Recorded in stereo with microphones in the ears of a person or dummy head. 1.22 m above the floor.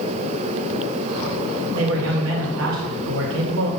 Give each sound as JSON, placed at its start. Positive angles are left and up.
{"t": 1.8, "sound": "a man speaking", "side_deg": -70, "distance_m": 1.8}